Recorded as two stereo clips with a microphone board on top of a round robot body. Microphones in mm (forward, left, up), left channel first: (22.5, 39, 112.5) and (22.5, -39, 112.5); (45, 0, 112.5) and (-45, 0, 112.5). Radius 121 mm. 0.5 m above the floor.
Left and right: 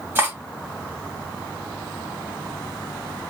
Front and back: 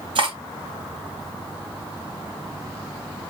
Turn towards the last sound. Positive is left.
turn(degrees=-155)